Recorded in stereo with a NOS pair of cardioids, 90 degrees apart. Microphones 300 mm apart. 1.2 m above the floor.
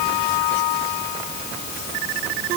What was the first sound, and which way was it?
Only background noise.